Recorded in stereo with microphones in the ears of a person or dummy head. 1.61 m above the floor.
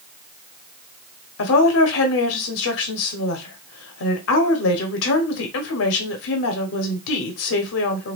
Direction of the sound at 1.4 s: 75° left (ahead or behind).